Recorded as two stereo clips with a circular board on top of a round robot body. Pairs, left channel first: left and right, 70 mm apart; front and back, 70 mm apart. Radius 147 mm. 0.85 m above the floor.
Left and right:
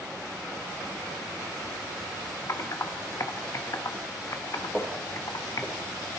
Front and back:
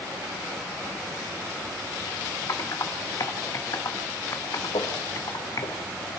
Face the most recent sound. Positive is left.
turn(degrees=15)